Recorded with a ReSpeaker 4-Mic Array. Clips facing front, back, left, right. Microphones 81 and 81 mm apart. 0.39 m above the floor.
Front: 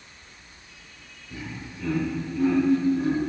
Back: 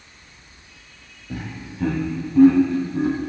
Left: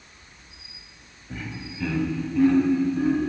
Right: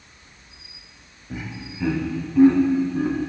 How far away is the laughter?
About 1.9 m.